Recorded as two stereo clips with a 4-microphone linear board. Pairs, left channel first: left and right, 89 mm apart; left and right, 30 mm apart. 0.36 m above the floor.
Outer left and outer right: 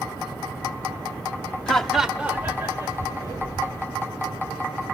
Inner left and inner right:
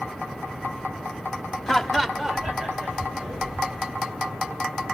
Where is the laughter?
10° left (ahead or behind), 1.1 m; by 3.9 s 30° right (ahead or behind), 2.5 m.